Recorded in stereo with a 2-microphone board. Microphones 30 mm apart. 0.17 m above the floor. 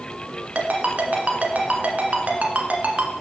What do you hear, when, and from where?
0.6 s a ringtone: 50° right (ahead or behind), 1.1 m